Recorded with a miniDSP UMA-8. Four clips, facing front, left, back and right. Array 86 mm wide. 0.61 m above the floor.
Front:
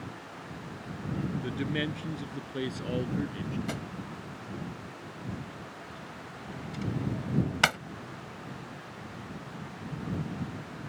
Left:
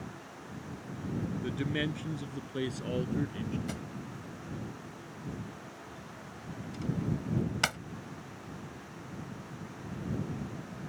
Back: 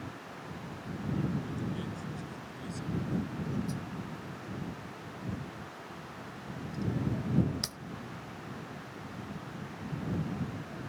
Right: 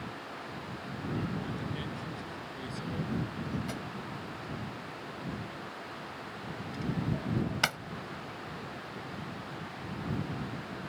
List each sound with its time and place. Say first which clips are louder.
1.4 s a man speaking: left 4 dB, front 5 dB; 40° left; by 3.6 s 35° left
3.7 s a drawer: right 2 dB, front 2 dB; 5° right